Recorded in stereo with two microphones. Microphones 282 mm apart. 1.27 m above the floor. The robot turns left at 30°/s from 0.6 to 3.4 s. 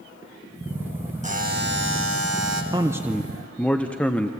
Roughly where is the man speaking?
Centre.